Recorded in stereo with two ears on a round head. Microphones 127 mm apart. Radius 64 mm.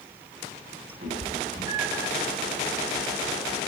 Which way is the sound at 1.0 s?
50° right (ahead or behind).